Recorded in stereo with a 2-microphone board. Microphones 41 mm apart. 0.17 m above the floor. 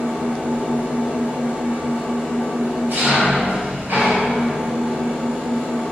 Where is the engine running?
60° right (ahead or behind), 1.6 m.